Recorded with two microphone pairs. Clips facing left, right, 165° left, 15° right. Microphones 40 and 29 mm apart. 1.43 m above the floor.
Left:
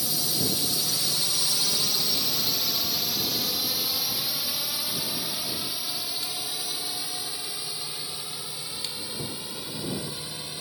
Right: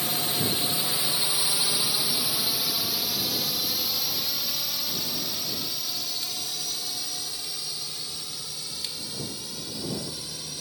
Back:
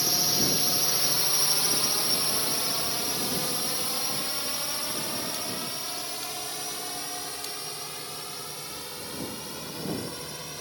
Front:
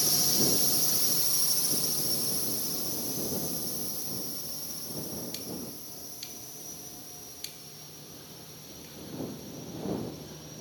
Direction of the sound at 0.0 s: 130° right.